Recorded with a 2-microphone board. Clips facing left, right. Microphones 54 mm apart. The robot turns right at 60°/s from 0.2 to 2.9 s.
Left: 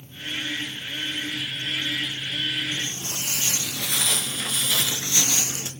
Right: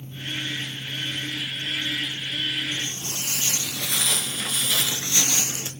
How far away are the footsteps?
About 1.0 m.